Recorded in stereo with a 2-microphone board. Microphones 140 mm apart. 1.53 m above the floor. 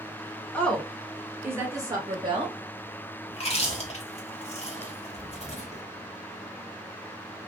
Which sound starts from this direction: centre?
A woman speaking, at 0.5 s.